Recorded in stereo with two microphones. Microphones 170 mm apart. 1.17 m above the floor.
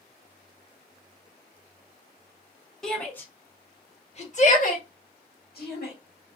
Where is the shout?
Centre (ahead or behind), 1.1 m; by 5.9 s 70° left (ahead or behind), 1.5 m.